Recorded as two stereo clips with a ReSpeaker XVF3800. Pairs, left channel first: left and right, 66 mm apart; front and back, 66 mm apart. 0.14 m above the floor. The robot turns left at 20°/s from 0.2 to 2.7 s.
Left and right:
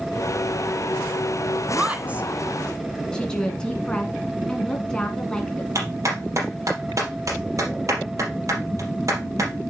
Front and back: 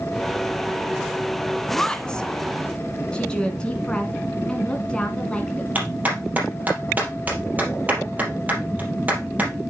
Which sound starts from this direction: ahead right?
A woman speaking, at 1.7 s.